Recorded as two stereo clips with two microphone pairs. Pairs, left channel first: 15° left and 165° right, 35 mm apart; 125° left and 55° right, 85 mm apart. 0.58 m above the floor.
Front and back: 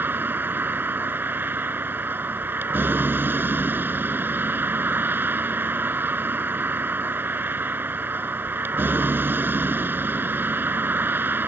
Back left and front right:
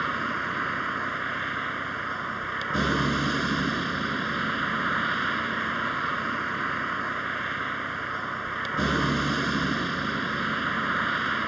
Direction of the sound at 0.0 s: 145° right.